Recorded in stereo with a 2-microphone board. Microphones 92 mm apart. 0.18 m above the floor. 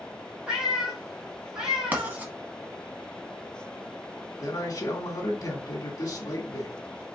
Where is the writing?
20° right (ahead or behind), 1.5 m.